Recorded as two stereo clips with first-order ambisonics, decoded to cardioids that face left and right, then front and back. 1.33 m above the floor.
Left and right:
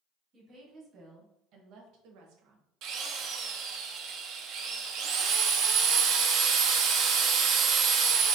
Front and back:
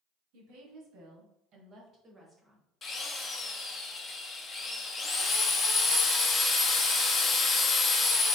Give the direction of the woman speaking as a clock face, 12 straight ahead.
5 o'clock.